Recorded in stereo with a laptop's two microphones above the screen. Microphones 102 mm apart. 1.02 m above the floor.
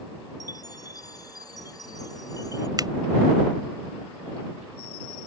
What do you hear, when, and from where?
0.4 s a chime: 35° left (ahead or behind)
2.8 s a finger snap: 40° right (ahead or behind)